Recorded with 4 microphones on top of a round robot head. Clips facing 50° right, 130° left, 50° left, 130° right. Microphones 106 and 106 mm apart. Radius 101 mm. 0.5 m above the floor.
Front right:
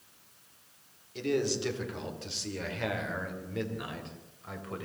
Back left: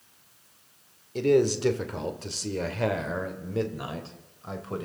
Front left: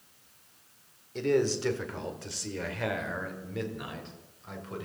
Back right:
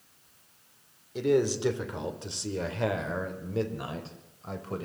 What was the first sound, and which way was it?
A man speaking, 150° left.